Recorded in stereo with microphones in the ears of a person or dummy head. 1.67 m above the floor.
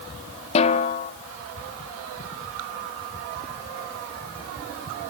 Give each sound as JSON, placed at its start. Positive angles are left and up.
{"t": 0.6, "sound": "a snare drum", "side_deg": 35, "distance_m": 0.9}